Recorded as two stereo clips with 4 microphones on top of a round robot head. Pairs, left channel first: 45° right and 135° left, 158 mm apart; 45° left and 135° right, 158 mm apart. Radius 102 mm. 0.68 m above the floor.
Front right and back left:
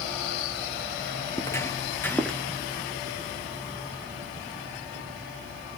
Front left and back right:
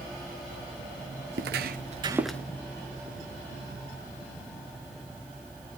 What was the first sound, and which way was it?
Footsteps, 115° right.